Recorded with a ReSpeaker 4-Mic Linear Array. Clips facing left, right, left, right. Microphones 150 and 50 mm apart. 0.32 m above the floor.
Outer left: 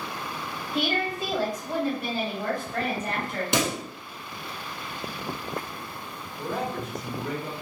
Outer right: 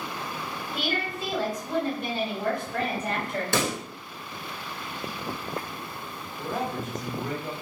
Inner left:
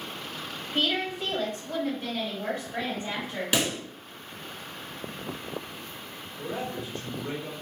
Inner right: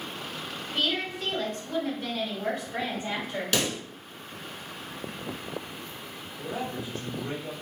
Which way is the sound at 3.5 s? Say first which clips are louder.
Outer left 1 dB, inner left 1 dB; 20° left (ahead or behind).